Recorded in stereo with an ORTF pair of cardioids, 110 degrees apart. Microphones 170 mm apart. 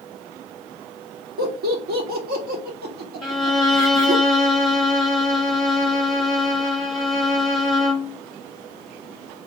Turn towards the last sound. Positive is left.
turn(degrees=0)